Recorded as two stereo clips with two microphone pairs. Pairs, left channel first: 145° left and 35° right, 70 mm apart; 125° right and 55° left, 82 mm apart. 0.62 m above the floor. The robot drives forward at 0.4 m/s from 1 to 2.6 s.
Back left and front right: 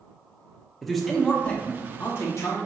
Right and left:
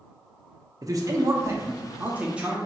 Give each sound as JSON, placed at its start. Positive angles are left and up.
{"t": 0.8, "sound": "a man speaking", "azimuth_deg": 60, "distance_m": 0.7}